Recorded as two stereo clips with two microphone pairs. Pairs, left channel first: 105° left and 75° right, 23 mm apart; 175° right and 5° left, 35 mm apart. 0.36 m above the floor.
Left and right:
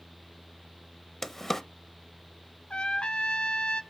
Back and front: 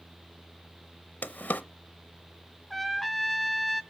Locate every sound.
1.2 s a drawer: 175° left, 0.7 m
2.7 s a trumpet: 95° left, 0.7 m